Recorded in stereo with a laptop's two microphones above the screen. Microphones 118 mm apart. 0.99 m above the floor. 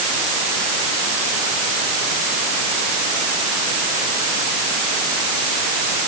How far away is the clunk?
No clunk in this recording.